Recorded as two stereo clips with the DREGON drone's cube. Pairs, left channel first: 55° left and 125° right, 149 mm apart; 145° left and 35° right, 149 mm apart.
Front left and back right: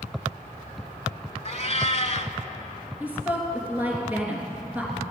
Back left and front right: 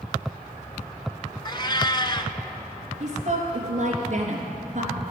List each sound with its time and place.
1.4 s a cat meowing: 90° left, 0.6 m
3.0 s a woman speaking: 45° right, 3 m